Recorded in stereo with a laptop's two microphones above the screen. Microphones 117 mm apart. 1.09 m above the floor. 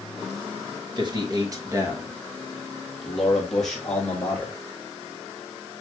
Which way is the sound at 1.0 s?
40° right (ahead or behind).